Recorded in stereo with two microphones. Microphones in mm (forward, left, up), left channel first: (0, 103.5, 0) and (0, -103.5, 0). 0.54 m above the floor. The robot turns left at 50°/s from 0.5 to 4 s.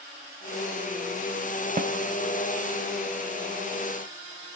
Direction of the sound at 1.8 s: 45° right (ahead or behind).